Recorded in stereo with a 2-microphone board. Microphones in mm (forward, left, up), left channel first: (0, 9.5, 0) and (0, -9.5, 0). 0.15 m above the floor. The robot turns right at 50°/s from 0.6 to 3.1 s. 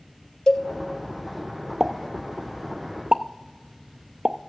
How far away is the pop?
About 0.5 m.